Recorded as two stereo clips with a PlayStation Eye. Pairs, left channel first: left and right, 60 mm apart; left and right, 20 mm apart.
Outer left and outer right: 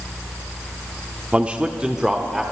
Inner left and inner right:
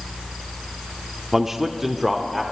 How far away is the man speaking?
About 0.7 m.